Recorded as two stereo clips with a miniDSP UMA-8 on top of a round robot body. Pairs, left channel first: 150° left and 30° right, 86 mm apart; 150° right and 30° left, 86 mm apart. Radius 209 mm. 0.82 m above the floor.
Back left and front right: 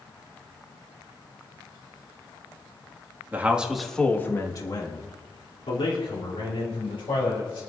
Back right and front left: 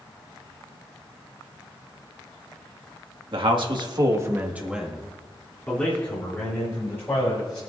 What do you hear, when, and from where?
3.3 s a man speaking: 40° left, 1.9 m; by 7.6 s 150° left, 5.5 m